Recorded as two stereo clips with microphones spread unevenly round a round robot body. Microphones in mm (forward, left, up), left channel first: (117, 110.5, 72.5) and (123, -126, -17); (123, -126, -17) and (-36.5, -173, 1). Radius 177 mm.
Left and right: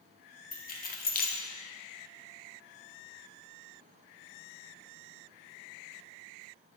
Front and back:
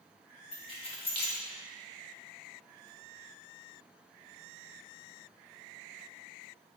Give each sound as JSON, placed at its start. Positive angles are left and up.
{"t": 0.5, "sound": "keys jangling", "azimuth_deg": 25, "distance_m": 0.6}